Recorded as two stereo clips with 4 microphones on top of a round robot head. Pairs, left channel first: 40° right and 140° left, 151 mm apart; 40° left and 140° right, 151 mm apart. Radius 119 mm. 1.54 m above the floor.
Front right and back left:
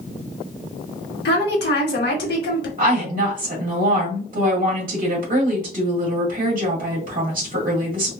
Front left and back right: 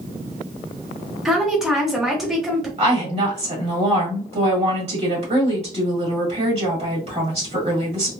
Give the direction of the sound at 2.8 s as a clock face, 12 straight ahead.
6 o'clock.